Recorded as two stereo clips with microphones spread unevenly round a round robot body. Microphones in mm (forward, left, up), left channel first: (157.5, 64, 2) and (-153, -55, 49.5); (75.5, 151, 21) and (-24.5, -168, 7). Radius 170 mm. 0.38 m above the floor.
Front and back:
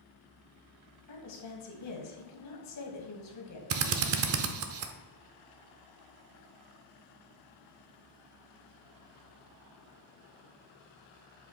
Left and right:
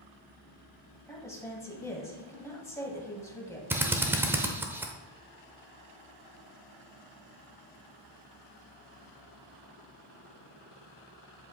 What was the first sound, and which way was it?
A woman speaking, 10° right.